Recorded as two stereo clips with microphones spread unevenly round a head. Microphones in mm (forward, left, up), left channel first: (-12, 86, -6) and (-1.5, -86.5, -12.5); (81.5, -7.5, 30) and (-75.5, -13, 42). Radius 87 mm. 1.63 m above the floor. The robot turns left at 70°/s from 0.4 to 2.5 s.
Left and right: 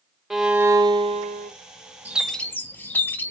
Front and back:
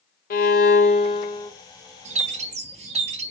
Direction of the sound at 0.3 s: 5° left.